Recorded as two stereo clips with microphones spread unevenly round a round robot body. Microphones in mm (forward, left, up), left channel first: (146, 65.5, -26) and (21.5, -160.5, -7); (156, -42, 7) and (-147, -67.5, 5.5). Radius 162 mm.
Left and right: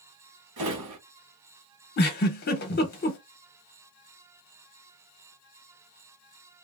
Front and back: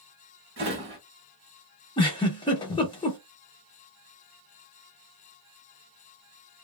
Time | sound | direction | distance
0.6 | a drawer | 125° right | 1.4 m
2.0 | a giggle | 75° left | 0.7 m